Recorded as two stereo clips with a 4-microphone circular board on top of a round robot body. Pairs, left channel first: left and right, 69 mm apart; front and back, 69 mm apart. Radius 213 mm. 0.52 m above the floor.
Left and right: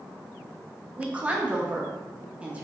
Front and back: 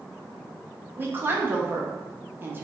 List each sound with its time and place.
1.0 s a woman speaking: 150° right, 1.0 m